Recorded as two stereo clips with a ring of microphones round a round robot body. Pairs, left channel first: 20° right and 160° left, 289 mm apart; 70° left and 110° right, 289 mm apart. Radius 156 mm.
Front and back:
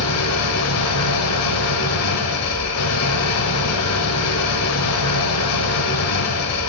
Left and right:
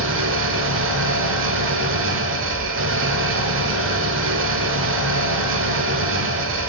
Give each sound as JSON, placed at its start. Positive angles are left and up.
{"t": 0.0, "sound": "an engine running", "azimuth_deg": -65, "distance_m": 1.0}